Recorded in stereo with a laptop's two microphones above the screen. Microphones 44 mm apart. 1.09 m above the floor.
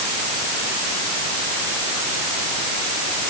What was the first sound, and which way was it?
Only background noise.